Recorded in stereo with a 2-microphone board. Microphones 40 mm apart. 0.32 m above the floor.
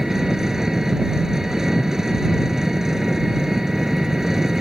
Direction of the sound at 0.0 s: 10° right (ahead or behind).